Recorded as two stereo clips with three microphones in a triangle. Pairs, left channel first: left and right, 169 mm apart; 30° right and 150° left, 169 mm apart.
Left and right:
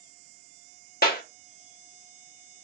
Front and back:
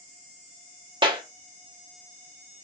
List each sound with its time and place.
1.0 s a clap: 90° left, 0.9 m